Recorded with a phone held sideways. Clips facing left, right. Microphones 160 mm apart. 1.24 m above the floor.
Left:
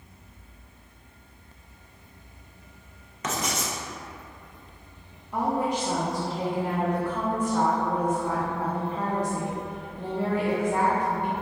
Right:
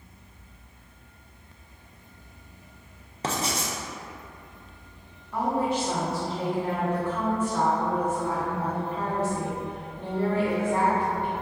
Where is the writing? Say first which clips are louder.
Right 1 dB; 30° right (ahead or behind), 0.5 m.